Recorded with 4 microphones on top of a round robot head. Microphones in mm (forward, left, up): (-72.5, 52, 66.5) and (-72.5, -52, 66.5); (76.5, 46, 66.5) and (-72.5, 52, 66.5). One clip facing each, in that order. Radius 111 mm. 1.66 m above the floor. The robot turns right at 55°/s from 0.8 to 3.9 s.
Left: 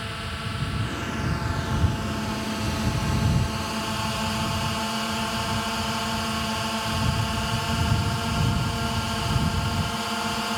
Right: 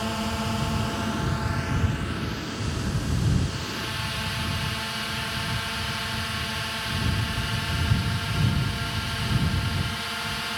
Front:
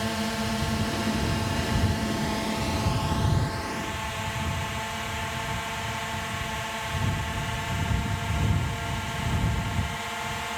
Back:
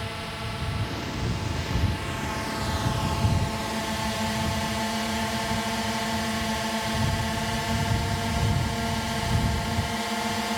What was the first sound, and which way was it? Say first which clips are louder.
A drone: right 6 dB, front 7 dB; 35° right.